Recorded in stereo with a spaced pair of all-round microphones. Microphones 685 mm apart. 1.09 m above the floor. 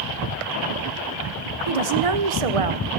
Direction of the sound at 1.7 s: 55° right (ahead or behind).